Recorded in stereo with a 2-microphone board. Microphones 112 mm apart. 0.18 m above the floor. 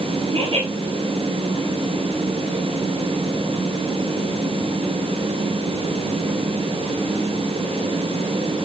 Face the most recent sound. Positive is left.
turn(degrees=-50)  # may be behind; listen again after turning